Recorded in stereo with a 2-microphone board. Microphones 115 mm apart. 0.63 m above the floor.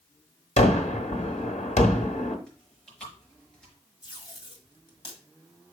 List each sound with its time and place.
0.6 s a gunshot: 75° left (ahead or behind), 1.7 m
2.5 s chewing: 5° left (ahead or behind), 5 m
4.0 s tape being pulled: 45° left (ahead or behind), 2 m